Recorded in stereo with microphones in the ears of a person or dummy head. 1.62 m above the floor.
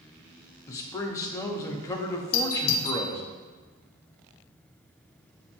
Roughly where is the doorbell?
Left.